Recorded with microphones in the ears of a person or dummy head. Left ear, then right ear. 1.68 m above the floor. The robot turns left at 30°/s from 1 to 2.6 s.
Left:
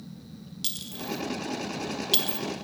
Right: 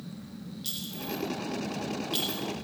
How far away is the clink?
About 2 m.